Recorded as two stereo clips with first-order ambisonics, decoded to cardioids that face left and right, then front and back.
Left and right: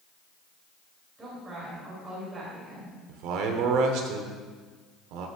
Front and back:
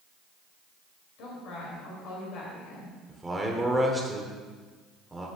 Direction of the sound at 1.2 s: 15° right.